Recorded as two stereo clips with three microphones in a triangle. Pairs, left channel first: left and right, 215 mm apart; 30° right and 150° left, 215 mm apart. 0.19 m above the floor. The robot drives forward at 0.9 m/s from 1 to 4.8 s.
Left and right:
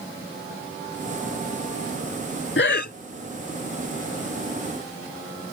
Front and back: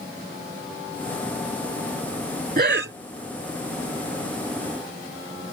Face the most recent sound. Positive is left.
turn(degrees=165)